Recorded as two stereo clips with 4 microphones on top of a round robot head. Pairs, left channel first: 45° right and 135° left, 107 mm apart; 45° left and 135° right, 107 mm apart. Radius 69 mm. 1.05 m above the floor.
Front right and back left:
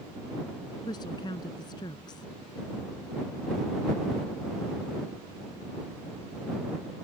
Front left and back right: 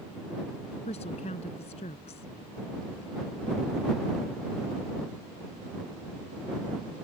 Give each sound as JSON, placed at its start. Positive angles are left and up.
{"t": 0.9, "sound": "a woman speaking", "azimuth_deg": 10}